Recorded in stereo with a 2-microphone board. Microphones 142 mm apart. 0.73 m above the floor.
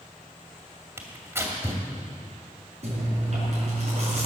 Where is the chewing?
50° right (ahead or behind), 5.5 m.